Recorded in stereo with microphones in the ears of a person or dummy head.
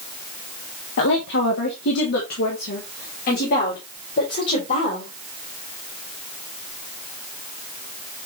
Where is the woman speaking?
70° left (ahead or behind), 1.8 m; by 5.1 s 45° left (ahead or behind), 5.5 m.